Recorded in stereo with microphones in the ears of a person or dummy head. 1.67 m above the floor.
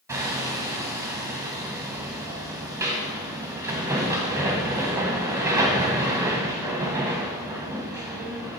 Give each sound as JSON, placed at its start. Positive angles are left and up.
{"t": 0.1, "sound": "hammering", "side_deg": -20, "distance_m": 1.4}